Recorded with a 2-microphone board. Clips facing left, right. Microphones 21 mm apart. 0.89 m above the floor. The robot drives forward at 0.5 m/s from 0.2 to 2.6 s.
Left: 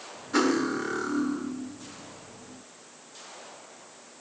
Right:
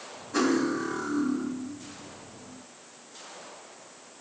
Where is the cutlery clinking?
80° left, 1.3 m; by 1.5 s 65° left (ahead or behind), 1.4 m.